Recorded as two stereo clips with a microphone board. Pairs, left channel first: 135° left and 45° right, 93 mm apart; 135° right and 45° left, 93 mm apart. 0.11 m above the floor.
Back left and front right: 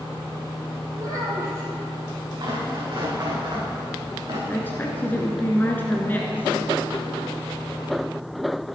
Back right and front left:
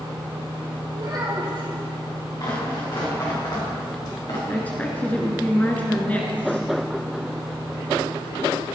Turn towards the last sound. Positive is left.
turn(degrees=175)